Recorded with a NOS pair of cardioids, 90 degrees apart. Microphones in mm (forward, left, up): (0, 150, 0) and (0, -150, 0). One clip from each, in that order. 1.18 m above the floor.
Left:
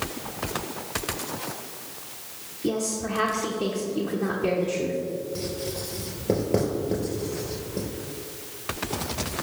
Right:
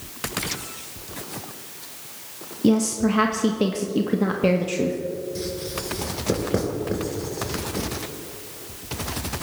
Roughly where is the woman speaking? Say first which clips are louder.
Right 6 dB; ahead right.